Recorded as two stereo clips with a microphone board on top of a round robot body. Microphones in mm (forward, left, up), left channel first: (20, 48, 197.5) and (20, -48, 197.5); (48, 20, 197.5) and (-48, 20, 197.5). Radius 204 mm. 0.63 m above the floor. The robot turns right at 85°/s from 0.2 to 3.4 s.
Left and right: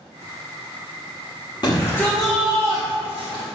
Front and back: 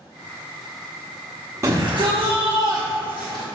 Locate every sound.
1.6 s a shout: 125° left, 1.5 m; by 3.4 s 85° right, 1.5 m